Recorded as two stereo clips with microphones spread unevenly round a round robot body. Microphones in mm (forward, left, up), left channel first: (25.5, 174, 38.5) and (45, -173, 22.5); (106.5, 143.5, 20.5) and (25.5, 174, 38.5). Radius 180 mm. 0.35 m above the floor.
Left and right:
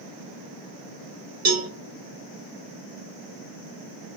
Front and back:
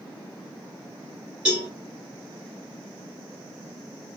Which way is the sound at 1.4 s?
110° right.